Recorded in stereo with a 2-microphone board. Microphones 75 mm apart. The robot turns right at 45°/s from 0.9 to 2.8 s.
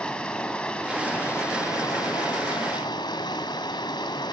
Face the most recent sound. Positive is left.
turn(degrees=100)